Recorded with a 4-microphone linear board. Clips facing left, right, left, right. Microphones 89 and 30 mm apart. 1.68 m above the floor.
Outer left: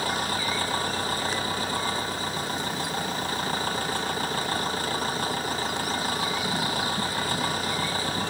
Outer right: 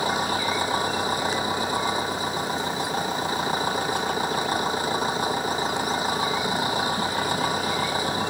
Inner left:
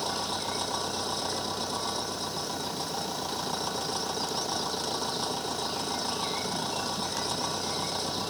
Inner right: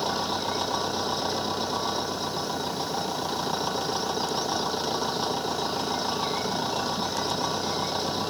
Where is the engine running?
15° right (ahead or behind).